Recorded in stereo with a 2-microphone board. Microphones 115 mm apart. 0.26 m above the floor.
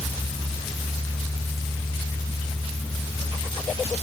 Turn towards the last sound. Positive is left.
No sound to turn to.